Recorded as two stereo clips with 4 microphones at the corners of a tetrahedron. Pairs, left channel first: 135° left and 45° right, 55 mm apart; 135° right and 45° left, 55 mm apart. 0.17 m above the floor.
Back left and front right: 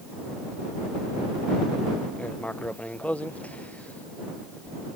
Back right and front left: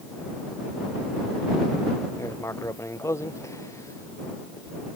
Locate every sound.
2.2 s writing: 160° right